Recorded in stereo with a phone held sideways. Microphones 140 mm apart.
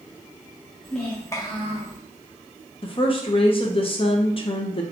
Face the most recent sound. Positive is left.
turn(degrees=40)  # may be behind; listen again after turning